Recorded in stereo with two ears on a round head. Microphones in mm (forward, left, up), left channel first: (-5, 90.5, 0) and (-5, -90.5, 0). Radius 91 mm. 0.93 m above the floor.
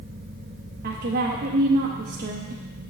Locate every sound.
0.8 s a woman speaking: 50° right (ahead or behind), 0.8 m